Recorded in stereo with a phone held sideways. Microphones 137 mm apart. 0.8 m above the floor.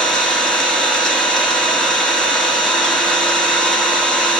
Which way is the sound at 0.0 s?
5° left (ahead or behind).